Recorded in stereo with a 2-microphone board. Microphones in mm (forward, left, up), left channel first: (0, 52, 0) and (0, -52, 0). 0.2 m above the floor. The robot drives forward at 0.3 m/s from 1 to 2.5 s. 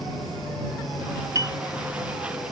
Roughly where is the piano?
Right.